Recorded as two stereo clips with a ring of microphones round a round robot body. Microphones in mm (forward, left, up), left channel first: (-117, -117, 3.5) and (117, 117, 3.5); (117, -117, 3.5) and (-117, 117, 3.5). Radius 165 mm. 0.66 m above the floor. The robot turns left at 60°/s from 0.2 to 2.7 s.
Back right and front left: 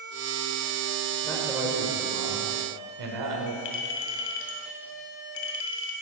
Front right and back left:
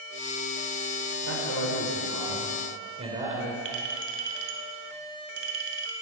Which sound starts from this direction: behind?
A clink, at 3.6 s.